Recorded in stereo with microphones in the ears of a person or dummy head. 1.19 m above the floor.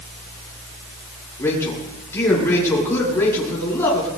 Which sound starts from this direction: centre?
A man speaking, at 1.4 s.